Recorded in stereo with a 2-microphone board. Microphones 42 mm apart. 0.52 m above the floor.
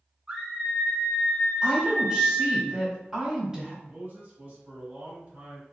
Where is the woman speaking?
15° right (ahead or behind), 1.8 m.